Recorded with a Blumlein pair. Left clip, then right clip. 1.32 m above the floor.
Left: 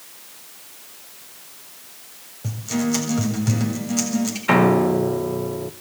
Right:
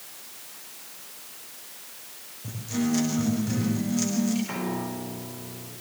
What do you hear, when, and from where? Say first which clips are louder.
2.4 s a guitar: left 4 dB; 60° left, 7.5 m
4.5 s a piano: left 15 dB; 40° left, 1.2 m